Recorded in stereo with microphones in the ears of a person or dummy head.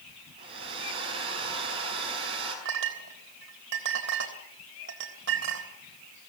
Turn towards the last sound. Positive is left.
turn(degrees=-75)  # may be behind; listen again after turning